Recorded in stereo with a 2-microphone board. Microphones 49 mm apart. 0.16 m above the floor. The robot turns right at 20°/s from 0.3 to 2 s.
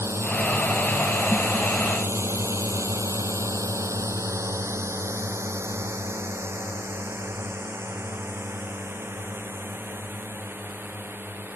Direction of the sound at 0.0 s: 60° right (ahead or behind).